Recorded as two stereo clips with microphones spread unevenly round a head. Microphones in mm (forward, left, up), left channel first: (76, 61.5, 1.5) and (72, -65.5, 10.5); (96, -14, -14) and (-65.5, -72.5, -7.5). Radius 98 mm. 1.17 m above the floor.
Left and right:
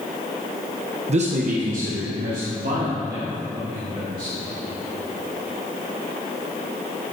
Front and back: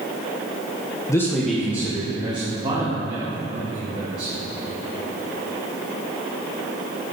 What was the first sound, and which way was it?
A man speaking, 55° right.